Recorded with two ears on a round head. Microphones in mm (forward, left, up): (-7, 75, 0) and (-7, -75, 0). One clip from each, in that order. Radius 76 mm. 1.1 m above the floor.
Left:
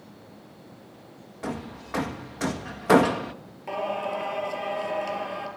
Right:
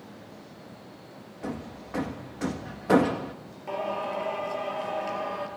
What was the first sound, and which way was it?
Hammering, 40° left (ahead or behind).